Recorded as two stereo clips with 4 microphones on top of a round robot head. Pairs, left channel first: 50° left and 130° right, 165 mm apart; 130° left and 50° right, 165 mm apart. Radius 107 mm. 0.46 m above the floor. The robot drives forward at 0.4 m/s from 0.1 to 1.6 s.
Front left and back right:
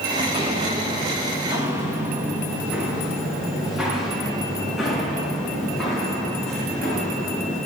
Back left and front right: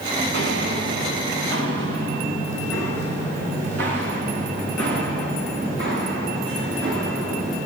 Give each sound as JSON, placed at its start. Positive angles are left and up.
{"t": 0.2, "sound": "footsteps", "azimuth_deg": -70, "distance_m": 2.0}